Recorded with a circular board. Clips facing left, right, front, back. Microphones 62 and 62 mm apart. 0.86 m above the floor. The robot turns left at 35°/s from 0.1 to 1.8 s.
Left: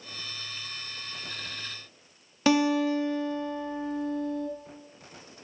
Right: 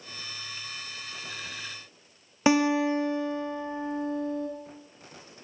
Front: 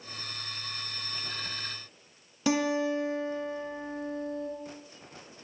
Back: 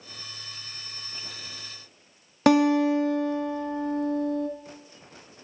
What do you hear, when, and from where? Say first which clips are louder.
2.5 s a guitar: right 1 dB, back 8 dB; 160° right, 0.6 m